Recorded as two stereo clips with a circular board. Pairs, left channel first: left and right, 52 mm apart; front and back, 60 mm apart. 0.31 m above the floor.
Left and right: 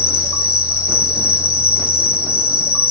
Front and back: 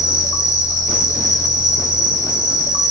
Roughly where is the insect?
Ahead.